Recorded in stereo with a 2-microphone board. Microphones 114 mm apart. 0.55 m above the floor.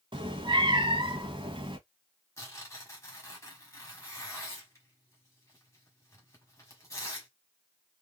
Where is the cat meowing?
45° right (ahead or behind), 1.0 m.